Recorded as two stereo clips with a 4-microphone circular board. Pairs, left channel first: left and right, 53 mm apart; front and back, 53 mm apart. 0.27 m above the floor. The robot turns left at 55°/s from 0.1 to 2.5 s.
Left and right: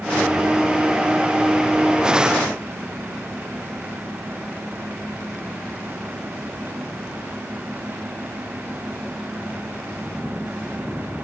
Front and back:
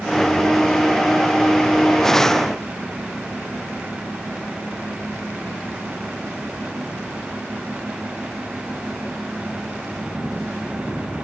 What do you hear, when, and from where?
Only background noise.